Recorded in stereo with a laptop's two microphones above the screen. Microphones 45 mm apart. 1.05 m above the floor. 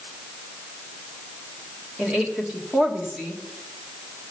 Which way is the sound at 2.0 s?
25° right (ahead or behind).